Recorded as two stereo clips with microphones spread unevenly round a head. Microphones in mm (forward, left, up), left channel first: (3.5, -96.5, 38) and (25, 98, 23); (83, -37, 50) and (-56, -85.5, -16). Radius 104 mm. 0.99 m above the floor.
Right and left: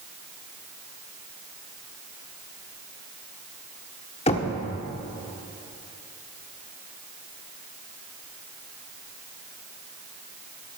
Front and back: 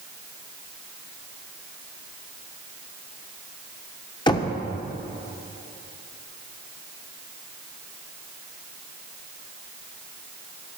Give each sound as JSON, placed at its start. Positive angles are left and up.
{"t": 4.3, "sound": "knocking", "azimuth_deg": -35, "distance_m": 1.4}